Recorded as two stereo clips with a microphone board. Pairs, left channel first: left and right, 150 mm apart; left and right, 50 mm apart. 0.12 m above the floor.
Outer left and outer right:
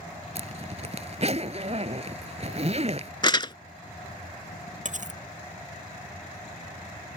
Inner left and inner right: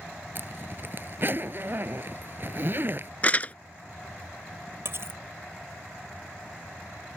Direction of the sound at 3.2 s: 35° left (ahead or behind).